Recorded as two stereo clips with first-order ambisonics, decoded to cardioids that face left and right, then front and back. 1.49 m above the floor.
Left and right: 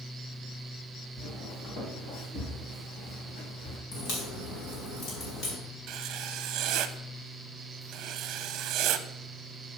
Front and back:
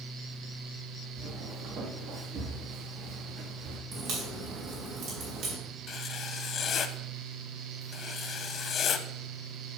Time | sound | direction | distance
1.2 | footsteps | 135° left | 3 m
3.9 | a crack | 135° left | 4 m
5.9 | writing | 55° right | 0.6 m